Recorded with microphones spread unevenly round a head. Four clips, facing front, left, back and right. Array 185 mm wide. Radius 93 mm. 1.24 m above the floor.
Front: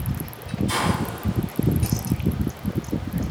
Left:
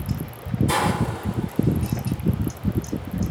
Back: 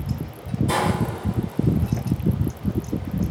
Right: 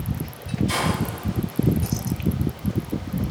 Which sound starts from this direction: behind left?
A hiss, at 0.7 s.